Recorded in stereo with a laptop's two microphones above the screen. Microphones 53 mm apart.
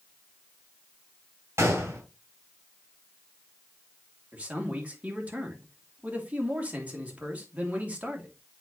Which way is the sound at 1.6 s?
60° right (ahead or behind).